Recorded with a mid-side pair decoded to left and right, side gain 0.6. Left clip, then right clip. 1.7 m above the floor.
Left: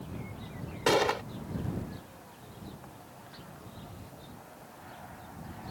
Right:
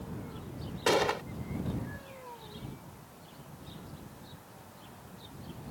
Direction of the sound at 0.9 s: 10° left.